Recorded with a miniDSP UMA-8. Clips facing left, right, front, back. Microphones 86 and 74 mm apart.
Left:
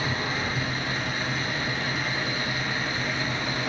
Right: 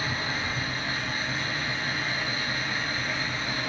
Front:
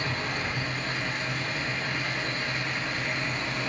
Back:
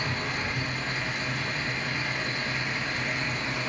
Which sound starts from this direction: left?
An engine running, at 0.0 s.